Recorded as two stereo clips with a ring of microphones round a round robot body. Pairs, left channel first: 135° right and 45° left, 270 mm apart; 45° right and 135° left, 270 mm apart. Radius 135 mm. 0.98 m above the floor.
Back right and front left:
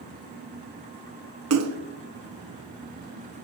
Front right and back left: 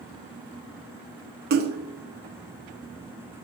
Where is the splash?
80° left, 0.8 m.